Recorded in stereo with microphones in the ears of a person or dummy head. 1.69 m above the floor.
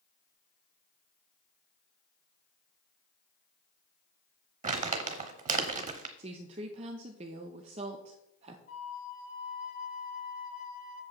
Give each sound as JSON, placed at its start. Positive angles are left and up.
{"t": 4.6, "sound": "crumpling", "side_deg": -40, "distance_m": 0.9}
{"t": 6.2, "sound": "a woman speaking", "side_deg": -30, "distance_m": 0.9}
{"t": 8.7, "sound": "a flute", "side_deg": 50, "distance_m": 2.5}